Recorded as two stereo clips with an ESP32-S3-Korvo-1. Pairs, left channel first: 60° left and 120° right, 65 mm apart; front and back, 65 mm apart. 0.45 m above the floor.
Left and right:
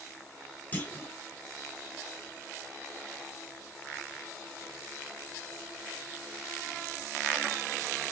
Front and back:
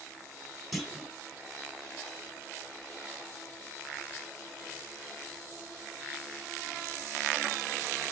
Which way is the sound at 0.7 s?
90° left.